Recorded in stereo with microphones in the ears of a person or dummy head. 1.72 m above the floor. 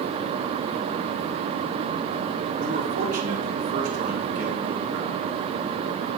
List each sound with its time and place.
2.6 s a man speaking: 45° right (ahead or behind), 3 m